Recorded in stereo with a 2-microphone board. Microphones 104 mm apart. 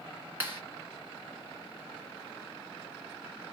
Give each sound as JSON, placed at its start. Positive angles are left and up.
{"t": 0.4, "sound": "a clap", "side_deg": -20, "distance_m": 1.7}